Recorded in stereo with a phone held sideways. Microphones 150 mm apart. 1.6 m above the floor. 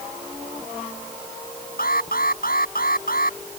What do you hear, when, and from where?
1.8 s an alarm: 80° left